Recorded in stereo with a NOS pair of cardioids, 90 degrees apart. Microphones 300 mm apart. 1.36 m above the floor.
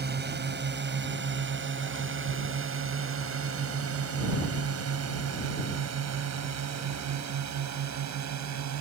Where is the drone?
35° right; by 8.8 s 70° right.